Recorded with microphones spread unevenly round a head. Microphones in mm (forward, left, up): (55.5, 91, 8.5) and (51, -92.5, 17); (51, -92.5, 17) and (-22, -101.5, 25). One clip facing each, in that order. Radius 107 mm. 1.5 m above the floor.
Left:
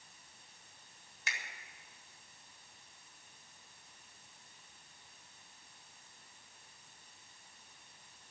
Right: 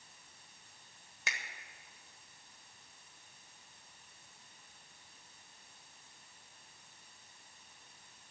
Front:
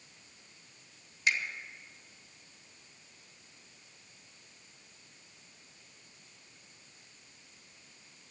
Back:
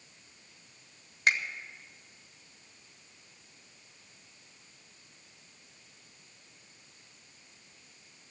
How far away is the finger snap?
About 1.6 m.